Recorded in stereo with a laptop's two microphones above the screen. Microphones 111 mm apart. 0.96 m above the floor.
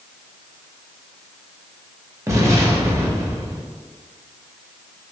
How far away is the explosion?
About 0.5 m.